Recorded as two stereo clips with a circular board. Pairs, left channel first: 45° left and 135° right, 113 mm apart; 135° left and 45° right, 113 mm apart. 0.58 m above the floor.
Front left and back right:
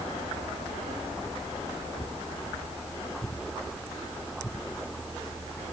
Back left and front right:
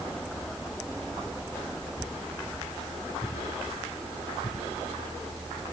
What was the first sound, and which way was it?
Only background noise.